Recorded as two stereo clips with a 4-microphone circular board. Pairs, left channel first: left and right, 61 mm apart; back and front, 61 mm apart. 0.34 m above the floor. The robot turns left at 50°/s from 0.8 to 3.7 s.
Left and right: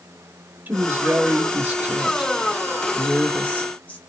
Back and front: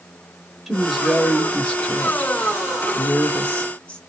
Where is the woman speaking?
85° right, 1.0 m; by 4.0 s 130° left, 1.0 m.